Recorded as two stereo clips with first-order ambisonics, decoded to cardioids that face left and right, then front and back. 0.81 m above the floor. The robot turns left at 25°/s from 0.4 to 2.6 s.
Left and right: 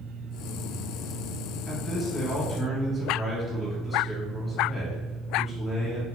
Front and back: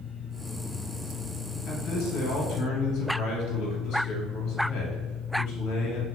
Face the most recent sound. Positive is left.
turn(degrees=-10)